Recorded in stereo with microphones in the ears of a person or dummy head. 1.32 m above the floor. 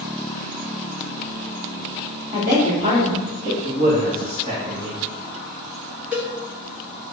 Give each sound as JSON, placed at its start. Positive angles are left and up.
{"t": 2.3, "sound": "a woman speaking", "side_deg": -25, "distance_m": 3.0}
{"t": 3.6, "sound": "a man speaking", "side_deg": -35, "distance_m": 1.8}
{"t": 6.1, "sound": "a cowbell", "side_deg": -10, "distance_m": 1.7}